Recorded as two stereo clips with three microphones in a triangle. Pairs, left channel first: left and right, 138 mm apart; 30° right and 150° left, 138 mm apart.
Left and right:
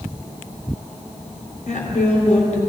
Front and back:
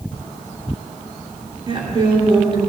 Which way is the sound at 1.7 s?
105° left.